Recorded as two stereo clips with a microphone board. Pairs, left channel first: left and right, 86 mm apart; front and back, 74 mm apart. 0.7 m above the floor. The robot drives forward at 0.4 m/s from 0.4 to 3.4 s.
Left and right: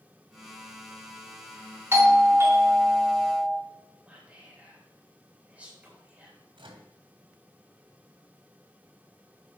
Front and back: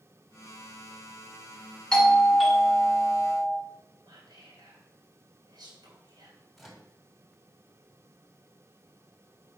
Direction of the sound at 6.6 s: 90° right.